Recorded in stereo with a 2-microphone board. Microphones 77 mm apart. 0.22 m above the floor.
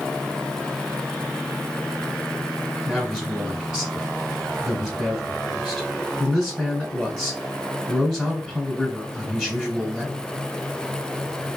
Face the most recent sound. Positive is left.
turn(degrees=-5)  # may be behind; listen again after turning